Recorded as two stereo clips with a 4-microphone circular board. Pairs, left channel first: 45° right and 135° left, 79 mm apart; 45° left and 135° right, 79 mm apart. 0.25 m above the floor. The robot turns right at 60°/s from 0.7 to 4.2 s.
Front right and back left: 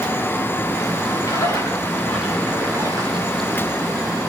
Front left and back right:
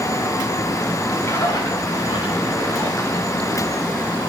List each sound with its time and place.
1.2 s a splash: 10° right, 8 m; by 3.3 s 110° left, 8 m